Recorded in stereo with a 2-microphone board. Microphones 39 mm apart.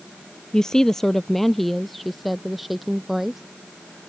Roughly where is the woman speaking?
Centre.